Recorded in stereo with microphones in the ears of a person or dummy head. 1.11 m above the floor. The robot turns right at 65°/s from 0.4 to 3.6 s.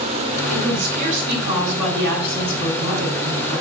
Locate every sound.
0.5 s a woman speaking: 85° right, 2 m; by 3.6 s 115° left, 2 m